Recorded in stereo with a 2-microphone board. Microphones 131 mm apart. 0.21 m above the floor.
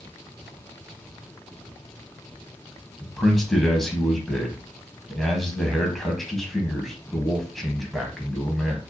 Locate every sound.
3.0 s a man speaking: centre (ahead or behind), 1.0 m